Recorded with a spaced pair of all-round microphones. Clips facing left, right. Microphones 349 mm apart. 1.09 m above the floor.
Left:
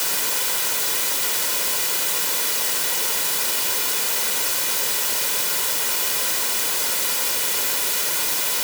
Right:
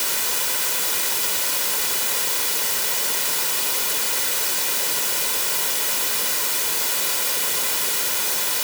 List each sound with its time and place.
Only background noise.